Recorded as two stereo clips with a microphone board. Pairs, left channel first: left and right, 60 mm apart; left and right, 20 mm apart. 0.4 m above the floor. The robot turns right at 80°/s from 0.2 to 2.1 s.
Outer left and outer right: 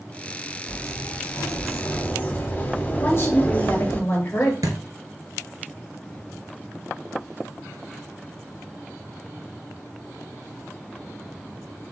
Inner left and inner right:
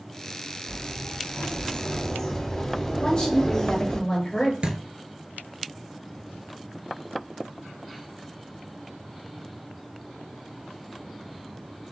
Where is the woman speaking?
45° left (ahead or behind), 1.8 m.